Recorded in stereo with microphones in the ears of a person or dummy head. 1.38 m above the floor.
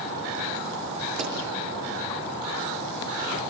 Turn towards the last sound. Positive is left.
turn(degrees=-45)  # may be behind; listen again after turning